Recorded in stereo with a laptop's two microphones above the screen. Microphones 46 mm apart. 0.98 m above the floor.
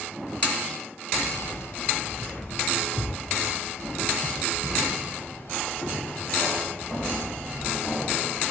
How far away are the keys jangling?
About 0.9 m.